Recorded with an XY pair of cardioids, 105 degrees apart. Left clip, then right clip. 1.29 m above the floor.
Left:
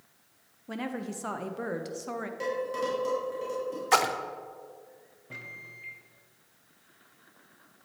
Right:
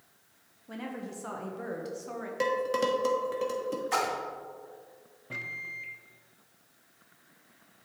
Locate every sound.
0.7 s a woman speaking: 40° left, 0.8 m
2.4 s dishes clattering: 60° right, 1.4 m
3.9 s a splash: 55° left, 0.5 m
5.3 s a microwave: 25° right, 0.6 m